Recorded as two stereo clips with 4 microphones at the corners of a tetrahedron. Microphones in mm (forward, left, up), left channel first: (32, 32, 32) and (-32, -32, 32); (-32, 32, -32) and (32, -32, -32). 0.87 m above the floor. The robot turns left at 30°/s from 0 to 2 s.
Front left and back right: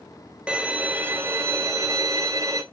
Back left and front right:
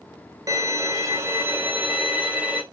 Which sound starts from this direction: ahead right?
A violin, at 0.5 s.